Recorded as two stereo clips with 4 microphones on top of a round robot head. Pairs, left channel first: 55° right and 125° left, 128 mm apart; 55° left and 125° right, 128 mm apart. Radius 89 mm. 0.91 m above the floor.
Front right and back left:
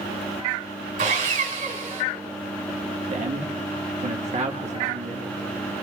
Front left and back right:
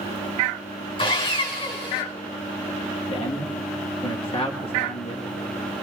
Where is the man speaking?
100° left, 1.4 m.